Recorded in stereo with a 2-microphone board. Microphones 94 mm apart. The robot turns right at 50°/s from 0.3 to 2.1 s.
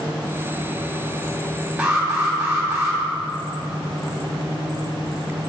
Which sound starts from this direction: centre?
An alarm, at 1.8 s.